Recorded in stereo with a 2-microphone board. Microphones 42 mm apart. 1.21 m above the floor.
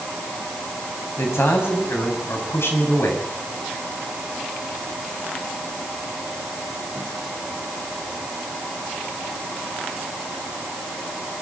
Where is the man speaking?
85° left, 8 m.